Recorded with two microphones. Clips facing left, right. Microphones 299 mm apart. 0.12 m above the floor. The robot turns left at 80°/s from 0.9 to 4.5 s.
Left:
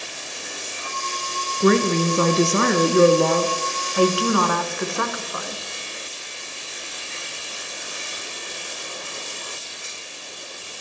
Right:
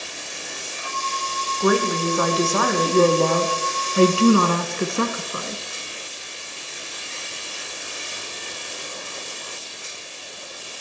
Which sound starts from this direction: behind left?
A woman speaking, at 1.6 s.